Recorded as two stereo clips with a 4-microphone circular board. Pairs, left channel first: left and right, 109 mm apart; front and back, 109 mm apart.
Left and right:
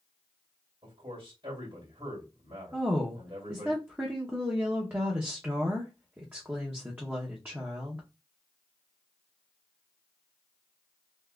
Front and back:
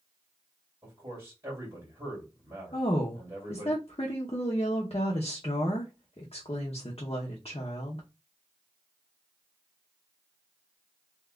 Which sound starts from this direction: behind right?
A man speaking, at 0.8 s.